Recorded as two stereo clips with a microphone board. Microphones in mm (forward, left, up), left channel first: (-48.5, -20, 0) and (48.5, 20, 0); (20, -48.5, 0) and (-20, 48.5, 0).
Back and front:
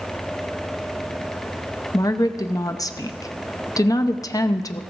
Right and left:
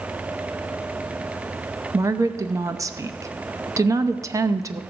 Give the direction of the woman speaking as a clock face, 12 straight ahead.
7 o'clock.